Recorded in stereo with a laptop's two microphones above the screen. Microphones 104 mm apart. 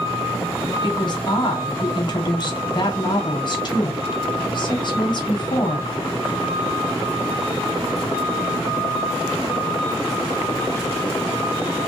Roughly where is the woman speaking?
Left.